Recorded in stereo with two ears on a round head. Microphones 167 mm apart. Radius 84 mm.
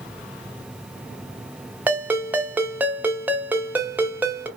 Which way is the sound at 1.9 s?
10° right (ahead or behind).